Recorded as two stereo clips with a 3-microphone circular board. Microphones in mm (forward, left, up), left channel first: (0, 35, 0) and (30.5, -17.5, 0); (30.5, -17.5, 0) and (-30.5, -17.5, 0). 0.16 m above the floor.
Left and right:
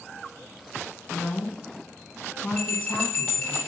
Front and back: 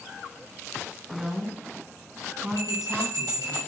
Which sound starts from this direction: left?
A woman speaking, at 1.1 s.